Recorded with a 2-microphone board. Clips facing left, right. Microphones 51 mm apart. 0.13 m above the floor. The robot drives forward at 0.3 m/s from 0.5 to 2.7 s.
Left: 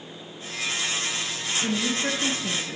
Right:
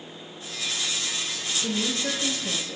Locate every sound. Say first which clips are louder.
1.6 s a woman speaking: left 2 dB; 40° left (ahead or behind), 1.8 m